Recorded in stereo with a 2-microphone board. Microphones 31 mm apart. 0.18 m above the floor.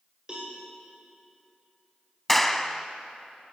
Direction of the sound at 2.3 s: 5° left (ahead or behind).